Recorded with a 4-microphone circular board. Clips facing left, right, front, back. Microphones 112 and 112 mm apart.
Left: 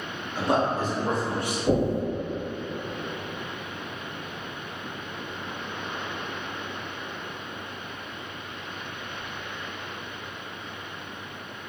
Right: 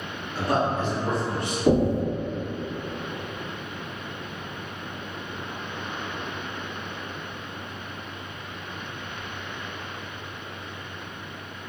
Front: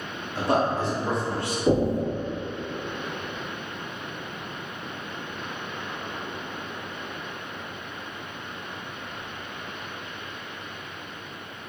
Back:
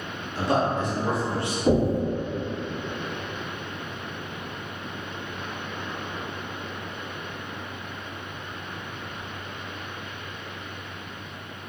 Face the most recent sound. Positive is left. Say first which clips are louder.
# right 3 dB, back 1 dB
turn(degrees=-100)